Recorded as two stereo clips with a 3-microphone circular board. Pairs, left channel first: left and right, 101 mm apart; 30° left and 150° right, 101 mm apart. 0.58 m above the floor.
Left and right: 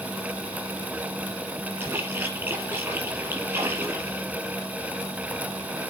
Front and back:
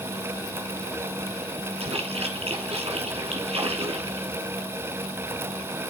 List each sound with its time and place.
1.8 s a splash: 160° right, 4.5 m